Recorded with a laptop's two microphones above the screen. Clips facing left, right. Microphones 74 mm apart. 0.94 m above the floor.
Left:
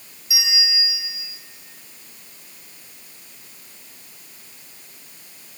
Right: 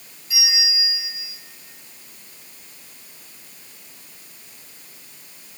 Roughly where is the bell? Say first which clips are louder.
Even; centre.